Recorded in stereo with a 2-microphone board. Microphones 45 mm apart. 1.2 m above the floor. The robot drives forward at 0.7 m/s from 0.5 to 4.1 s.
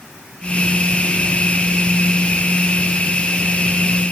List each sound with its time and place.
Only background noise.